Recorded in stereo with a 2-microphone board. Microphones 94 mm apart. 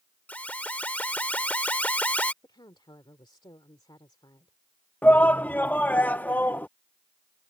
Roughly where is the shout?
Centre.